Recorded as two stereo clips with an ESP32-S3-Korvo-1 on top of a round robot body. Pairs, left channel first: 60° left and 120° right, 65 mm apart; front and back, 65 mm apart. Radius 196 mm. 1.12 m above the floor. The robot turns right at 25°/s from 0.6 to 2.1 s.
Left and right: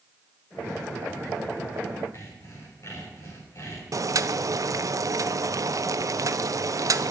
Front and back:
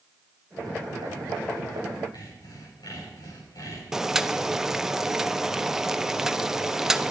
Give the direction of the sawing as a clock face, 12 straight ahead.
11 o'clock.